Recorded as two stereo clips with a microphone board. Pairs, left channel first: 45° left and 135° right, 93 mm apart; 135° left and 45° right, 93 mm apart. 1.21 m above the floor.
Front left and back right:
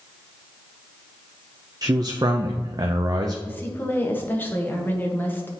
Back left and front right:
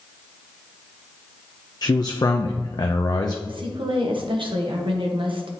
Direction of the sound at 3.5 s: 25° right.